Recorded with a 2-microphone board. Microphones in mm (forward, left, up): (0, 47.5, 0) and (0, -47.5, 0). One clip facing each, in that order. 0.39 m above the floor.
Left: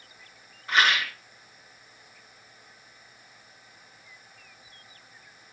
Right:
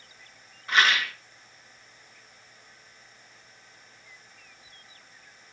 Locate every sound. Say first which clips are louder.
0.7 s a rattle: even; centre (ahead or behind), 1.4 m